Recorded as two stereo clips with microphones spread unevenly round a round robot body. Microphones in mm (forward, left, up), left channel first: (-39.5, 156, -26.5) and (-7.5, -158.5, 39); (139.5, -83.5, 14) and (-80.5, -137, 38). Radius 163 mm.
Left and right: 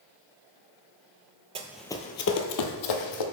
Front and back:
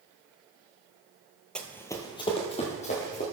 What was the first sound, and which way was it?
Running footsteps, 80° right.